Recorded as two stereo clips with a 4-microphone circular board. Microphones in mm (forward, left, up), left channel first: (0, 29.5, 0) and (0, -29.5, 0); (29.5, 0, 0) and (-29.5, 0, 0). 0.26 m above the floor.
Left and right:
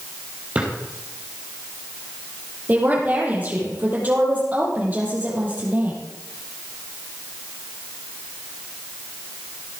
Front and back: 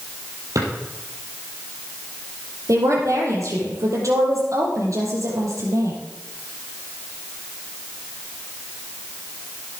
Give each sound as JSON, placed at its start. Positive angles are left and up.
{"t": 0.6, "sound": "a drawer", "azimuth_deg": -160, "distance_m": 5.0}
{"t": 2.7, "sound": "a woman speaking", "azimuth_deg": -150, "distance_m": 6.5}